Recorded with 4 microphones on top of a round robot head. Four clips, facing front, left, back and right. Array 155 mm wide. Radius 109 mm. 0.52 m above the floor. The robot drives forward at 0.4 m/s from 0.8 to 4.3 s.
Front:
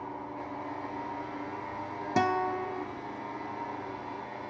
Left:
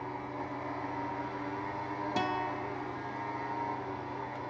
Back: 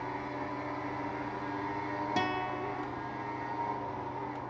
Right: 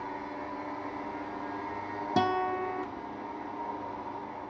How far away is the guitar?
About 0.7 m.